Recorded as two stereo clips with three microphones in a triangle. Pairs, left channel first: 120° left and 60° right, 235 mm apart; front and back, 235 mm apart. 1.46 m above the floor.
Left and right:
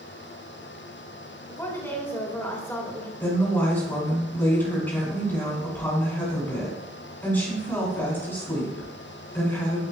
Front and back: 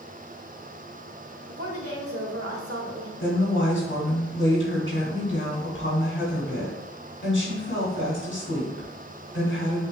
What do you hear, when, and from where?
1.5 s a woman speaking: 160° right, 1.8 m
3.2 s a woman speaking: 40° left, 3 m